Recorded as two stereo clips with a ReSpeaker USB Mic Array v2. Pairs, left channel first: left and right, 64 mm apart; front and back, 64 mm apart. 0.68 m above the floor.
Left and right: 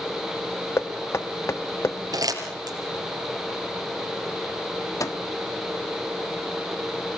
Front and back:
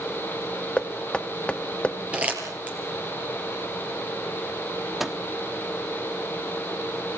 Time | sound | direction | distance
0.8 | knocking | 70° left | 0.8 m
2.1 | crumpling | 110° right | 4.5 m
5.0 | a microwave | 95° left | 1.0 m